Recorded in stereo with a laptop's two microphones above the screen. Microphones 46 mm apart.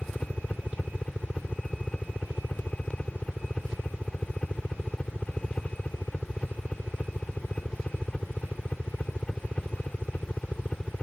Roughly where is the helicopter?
Left.